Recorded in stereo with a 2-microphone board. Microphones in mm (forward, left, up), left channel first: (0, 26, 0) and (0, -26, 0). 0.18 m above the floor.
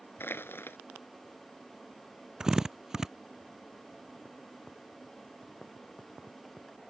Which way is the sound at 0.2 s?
50° left (ahead or behind).